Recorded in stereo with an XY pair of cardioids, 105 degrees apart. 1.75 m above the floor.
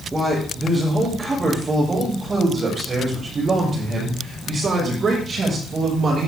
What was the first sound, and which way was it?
A man speaking, 20° right.